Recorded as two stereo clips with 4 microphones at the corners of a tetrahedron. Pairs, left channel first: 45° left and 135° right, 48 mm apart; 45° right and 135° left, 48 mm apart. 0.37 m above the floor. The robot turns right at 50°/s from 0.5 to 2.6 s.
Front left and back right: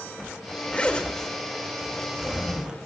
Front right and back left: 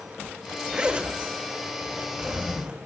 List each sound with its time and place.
0.7 s a zipper: 80° left, 1.5 m; by 2.8 s straight behind, 1.5 m